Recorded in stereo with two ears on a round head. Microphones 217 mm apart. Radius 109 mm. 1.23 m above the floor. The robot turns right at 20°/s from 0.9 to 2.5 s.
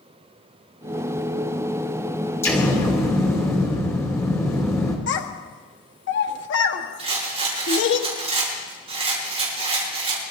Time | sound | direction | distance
2.4 | an explosion | 10° left (ahead or behind) | 2.5 m
5.1 | a child speaking | 50° left (ahead or behind) | 1.3 m
7.0 | a rattle | 25° right (ahead or behind) | 5.5 m